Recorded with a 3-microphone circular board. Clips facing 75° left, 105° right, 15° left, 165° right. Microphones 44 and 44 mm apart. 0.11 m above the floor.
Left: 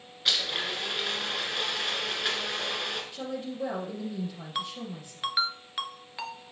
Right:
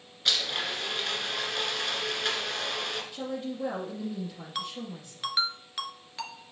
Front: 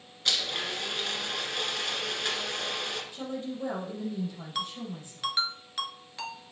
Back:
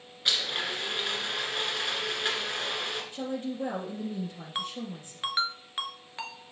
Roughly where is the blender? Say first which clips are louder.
Even, back 1 dB; behind left.